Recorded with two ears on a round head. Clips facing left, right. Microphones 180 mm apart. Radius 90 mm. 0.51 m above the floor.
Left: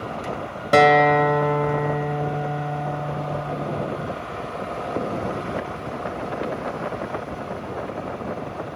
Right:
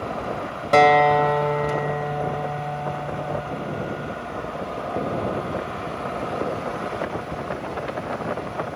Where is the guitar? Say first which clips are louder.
Even; 15° left (ahead or behind), 1.1 m.